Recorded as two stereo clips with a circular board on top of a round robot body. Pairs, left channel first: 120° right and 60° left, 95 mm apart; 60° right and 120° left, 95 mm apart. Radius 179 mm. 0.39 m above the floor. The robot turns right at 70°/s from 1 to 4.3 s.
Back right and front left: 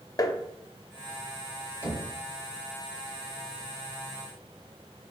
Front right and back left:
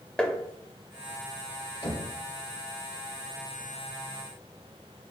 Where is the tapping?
135° right, 0.8 m.